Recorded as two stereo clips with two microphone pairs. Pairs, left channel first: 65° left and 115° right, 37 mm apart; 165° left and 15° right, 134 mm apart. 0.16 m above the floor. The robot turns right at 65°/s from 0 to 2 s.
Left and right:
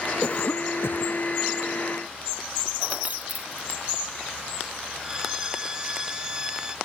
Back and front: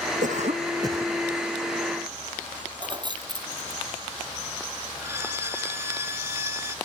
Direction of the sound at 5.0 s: 65° right.